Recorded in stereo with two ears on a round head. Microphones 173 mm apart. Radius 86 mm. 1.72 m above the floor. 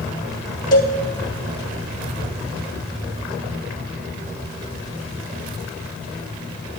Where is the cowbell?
20° left (ahead or behind), 2 m.